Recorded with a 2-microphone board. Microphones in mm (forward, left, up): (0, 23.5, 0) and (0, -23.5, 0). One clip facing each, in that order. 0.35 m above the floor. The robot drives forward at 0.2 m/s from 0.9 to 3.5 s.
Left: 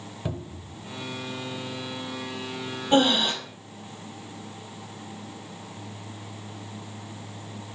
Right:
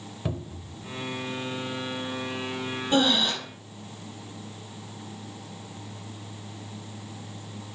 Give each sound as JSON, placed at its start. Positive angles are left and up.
{"t": 0.2, "sound": "a cupboard door", "side_deg": -10, "distance_m": 1.0}
{"t": 2.9, "sound": "breathing", "side_deg": 35, "distance_m": 2.5}